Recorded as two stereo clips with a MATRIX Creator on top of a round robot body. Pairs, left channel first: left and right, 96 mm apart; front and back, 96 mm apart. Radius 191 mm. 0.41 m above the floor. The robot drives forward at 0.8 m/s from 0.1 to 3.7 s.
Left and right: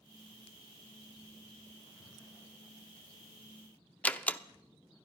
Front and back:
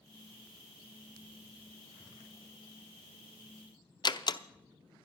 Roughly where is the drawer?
Ahead left.